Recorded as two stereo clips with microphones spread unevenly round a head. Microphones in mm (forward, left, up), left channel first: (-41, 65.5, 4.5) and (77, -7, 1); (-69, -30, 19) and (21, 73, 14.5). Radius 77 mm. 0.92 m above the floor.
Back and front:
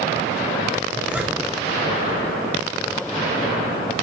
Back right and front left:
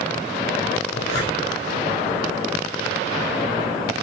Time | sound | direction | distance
0.9 | a zipper | 115° right | 3.5 m